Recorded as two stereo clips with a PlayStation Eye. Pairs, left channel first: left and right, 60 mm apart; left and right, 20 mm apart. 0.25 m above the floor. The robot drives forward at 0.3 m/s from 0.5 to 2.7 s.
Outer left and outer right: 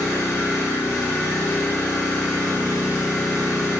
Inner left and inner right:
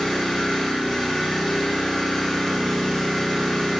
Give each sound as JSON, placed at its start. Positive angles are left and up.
{"t": 0.0, "sound": "an engine running", "side_deg": 50, "distance_m": 1.5}